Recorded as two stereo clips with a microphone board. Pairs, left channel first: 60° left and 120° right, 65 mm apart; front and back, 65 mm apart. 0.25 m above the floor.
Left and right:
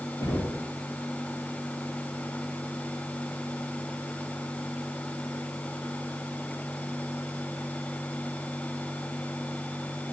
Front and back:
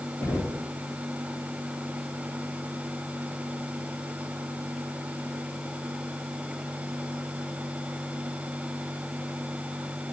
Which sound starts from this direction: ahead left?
Knocking, at 0.2 s.